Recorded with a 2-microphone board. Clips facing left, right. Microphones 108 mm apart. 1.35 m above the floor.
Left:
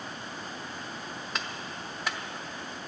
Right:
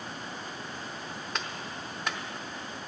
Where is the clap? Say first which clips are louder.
Even; centre (ahead or behind), 0.9 m.